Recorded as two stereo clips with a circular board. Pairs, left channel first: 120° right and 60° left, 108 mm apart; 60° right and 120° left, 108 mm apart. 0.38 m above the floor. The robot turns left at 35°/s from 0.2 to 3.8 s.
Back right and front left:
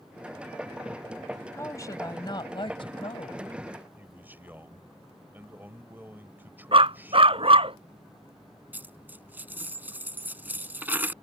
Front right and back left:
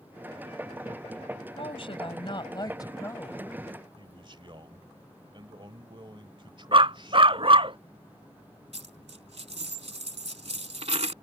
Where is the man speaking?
125° left.